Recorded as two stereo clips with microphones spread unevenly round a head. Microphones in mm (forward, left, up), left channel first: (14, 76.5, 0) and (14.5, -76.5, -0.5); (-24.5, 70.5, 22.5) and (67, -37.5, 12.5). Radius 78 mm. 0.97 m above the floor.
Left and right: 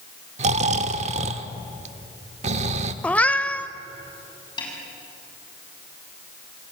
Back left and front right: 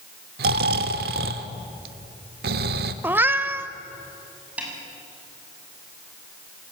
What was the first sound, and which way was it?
Snoring, 50° right.